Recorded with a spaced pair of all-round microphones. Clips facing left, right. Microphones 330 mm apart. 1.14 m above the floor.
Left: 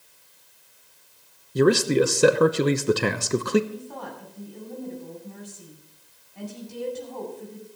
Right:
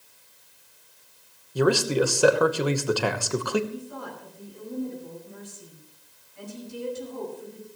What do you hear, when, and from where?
1.6 s a man speaking: 30° left (ahead or behind), 0.9 m
3.7 s a woman speaking: 75° left (ahead or behind), 7.5 m